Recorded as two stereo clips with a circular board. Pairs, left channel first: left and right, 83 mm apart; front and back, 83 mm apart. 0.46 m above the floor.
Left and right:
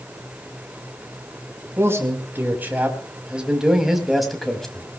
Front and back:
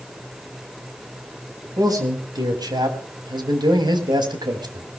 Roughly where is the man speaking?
Behind right.